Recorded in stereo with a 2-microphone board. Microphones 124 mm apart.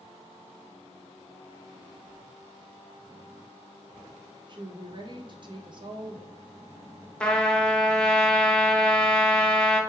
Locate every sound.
4.5 s a woman speaking: 40° right (ahead or behind), 0.6 m
7.2 s a trumpet: 10° left (ahead or behind), 0.5 m